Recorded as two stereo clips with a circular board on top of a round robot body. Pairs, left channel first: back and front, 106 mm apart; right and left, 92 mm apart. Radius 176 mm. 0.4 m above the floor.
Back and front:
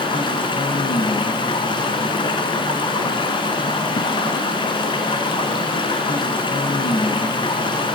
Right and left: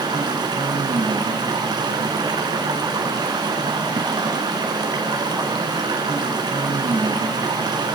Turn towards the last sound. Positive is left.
turn(degrees=135)